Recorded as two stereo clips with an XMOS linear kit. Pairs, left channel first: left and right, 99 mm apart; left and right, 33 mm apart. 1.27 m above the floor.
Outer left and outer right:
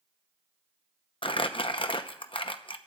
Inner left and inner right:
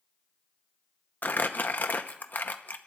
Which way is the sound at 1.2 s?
60° left (ahead or behind).